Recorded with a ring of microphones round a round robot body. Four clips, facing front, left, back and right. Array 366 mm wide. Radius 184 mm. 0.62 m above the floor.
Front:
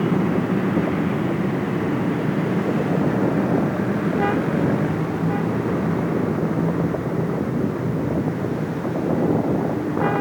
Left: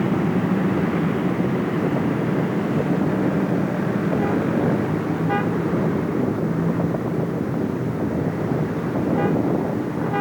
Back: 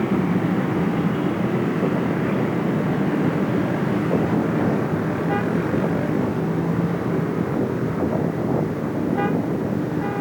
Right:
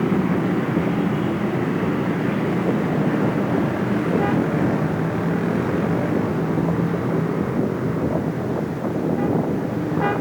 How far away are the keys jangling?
No keys jangling in this recording.